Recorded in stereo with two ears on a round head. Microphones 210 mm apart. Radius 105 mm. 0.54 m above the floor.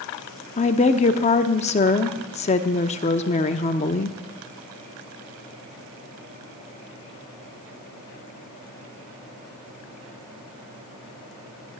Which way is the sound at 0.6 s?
30° left (ahead or behind).